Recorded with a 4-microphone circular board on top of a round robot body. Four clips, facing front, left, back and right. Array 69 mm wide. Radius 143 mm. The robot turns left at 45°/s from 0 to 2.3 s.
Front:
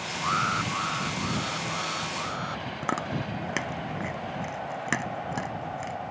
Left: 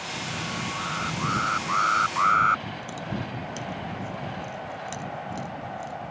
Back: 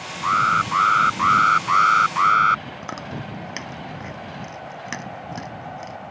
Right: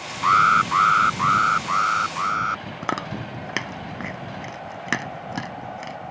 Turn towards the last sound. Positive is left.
turn(degrees=-70)